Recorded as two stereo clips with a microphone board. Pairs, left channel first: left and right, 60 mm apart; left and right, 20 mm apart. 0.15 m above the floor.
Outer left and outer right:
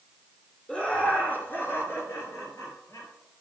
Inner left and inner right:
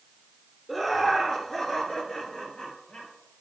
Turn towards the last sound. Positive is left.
turn(degrees=60)  # may be behind; listen again after turning